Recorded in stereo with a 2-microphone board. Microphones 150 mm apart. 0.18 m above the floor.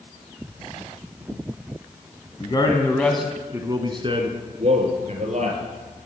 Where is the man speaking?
35° left (ahead or behind), 1.6 m; by 5.6 s 50° right (ahead or behind), 4 m.